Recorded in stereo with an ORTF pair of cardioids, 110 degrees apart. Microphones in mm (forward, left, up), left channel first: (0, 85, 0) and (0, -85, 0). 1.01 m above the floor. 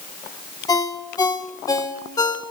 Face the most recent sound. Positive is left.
turn(degrees=20)